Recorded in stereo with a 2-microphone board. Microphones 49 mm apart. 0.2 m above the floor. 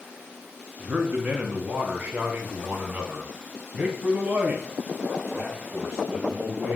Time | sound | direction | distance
0.8 | a man speaking | 30° right (ahead or behind) | 1.8 m